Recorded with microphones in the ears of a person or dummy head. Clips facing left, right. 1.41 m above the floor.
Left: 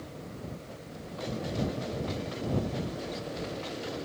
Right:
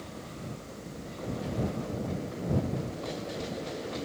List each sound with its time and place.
Only background noise.